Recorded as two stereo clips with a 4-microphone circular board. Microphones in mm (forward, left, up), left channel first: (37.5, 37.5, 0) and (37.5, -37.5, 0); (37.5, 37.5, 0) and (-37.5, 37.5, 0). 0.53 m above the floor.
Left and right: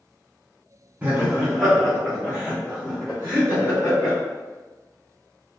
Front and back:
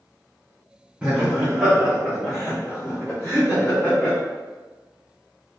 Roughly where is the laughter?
Behind right.